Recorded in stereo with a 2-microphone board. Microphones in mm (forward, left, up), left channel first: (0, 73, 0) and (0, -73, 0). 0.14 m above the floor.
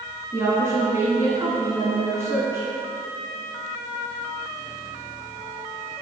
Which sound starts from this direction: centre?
A woman speaking, at 0.3 s.